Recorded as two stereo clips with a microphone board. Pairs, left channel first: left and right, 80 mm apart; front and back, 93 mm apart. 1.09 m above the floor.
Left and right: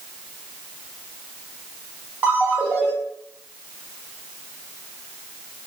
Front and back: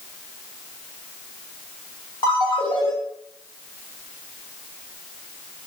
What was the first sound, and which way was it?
A ringtone, 25° right.